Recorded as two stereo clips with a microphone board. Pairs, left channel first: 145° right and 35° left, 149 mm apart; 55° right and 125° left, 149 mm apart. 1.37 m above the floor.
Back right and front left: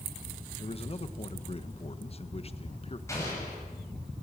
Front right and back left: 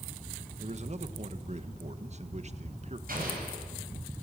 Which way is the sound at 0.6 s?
165° left.